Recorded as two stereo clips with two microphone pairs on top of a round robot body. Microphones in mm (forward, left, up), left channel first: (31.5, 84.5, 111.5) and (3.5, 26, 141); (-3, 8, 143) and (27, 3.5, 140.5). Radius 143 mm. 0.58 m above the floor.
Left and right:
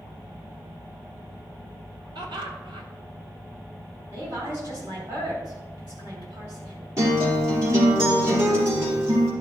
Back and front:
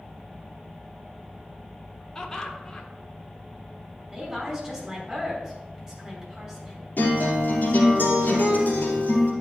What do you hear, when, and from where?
2.1 s laughter: 115° right, 1.8 m
4.1 s a woman speaking: 85° right, 5 m
7.0 s a guitar: 160° right, 3 m